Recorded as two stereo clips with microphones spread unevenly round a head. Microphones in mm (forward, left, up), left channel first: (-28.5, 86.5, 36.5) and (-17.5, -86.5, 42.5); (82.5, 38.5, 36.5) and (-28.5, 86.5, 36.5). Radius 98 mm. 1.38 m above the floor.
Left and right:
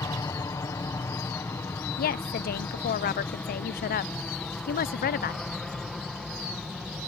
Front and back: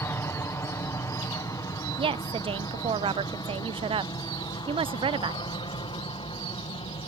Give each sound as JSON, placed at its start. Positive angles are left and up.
{"t": 0.0, "sound": "an aircraft", "azimuth_deg": 30}
{"t": 2.0, "sound": "a woman speaking", "azimuth_deg": 115}